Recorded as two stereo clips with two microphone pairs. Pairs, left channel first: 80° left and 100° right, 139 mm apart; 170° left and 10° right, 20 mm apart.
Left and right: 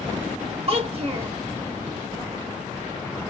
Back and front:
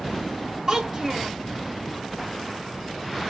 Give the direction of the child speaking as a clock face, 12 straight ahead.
2 o'clock.